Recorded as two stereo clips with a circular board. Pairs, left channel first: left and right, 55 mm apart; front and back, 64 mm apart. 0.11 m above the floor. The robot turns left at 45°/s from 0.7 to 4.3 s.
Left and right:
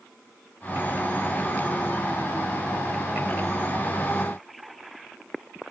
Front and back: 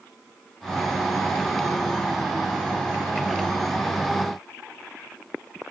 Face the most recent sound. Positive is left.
No sound to turn to.